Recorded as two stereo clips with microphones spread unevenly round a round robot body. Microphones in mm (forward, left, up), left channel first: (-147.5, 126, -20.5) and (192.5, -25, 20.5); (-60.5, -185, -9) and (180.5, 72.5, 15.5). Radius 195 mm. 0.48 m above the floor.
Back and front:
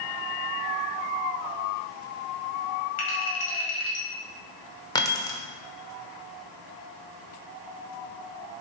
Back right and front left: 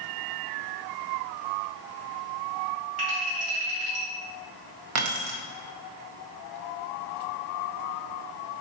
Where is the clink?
120° left, 2 m.